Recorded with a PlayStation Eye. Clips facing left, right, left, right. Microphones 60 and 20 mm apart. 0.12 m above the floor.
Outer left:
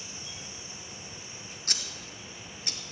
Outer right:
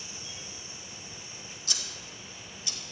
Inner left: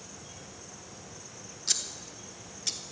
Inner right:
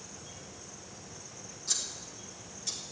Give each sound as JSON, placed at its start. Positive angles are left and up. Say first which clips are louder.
{"t": 1.7, "sound": "scissors", "louder": "outer left 1 dB, inner left 3 dB", "side_deg": 50, "distance_m": 1.4}